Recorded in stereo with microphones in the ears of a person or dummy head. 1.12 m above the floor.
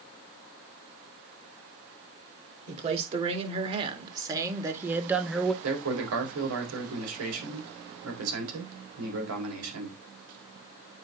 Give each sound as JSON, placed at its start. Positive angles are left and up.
{"t": 2.7, "sound": "a man speaking", "side_deg": -40, "distance_m": 3.0}
{"t": 5.6, "sound": "a man speaking", "side_deg": -80, "distance_m": 4.0}